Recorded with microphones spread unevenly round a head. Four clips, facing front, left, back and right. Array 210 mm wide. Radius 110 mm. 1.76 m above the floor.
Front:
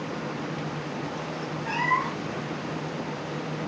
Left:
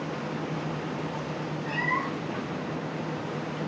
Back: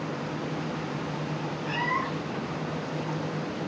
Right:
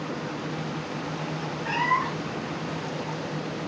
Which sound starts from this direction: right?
A cat meowing, at 1.6 s.